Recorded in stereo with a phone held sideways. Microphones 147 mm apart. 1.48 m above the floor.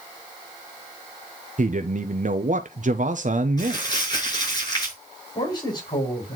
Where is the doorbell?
I don't hear a doorbell.